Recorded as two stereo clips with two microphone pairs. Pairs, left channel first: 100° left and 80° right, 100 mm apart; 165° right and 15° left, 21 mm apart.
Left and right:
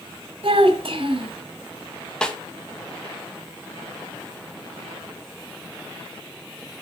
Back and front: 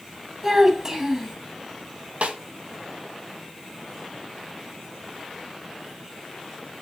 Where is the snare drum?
20° left, 1.6 m.